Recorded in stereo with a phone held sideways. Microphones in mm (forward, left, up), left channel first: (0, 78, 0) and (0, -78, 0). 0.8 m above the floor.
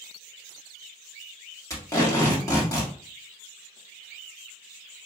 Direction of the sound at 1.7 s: 20° left (ahead or behind).